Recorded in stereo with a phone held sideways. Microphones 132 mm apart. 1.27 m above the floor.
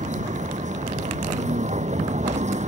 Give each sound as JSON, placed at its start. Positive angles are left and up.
{"t": 0.0, "sound": "a vehicle", "side_deg": -60}